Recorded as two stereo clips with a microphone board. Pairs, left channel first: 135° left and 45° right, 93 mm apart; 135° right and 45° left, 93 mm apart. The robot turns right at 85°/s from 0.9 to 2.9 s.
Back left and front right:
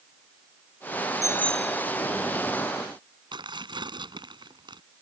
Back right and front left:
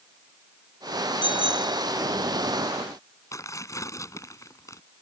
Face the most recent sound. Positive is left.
turn(degrees=-80)